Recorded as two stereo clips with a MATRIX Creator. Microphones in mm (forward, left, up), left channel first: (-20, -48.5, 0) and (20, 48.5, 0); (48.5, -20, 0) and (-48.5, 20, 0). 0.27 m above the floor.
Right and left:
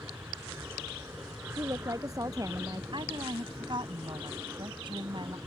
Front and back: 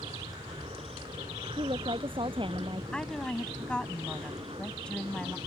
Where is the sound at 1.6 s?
125° left.